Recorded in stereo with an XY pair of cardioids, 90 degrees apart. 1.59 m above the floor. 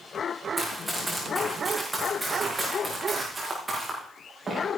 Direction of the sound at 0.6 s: 5° right.